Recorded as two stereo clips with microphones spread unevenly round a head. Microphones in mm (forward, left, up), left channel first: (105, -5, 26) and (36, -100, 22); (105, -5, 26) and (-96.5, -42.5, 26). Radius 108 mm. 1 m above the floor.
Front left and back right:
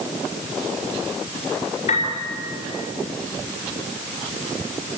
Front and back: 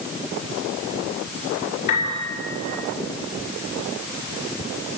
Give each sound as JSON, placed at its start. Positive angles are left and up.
{"t": 1.9, "sound": "a piano", "azimuth_deg": 65, "distance_m": 5.5}